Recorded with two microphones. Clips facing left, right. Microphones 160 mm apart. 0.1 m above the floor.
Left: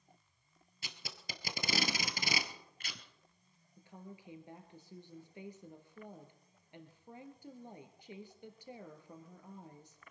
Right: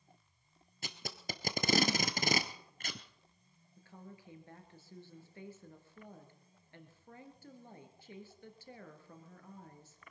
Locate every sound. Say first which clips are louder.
0.8 s tape being pulled: right 7 dB; 50° right (ahead or behind), 1.4 m
3.8 s a woman speaking: left 1 dB; 15° left (ahead or behind), 2 m